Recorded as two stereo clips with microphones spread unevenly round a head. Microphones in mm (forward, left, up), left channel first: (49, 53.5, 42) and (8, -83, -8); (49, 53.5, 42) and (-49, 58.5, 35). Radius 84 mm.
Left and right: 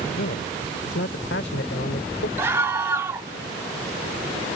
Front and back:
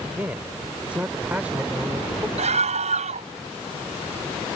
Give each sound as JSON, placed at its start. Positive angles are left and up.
{"t": 0.1, "sound": "a man speaking", "azimuth_deg": 105}
{"t": 2.4, "sound": "a scream", "azimuth_deg": 175}